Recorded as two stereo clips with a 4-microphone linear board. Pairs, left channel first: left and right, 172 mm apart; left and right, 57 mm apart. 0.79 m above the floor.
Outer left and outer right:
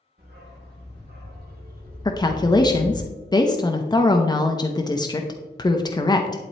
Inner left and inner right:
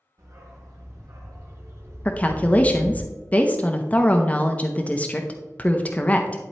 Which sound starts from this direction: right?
A dog barking, at 0.2 s.